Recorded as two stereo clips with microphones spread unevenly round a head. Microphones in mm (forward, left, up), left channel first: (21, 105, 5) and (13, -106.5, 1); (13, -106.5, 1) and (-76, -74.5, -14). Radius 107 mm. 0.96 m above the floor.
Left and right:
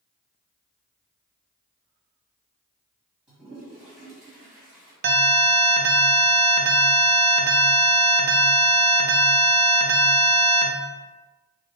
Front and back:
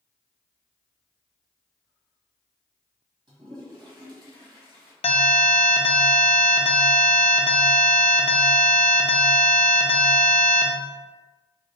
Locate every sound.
3.3 s a toilet flushing: straight behind, 1.7 m
5.0 s an alarm: 45° right, 0.6 m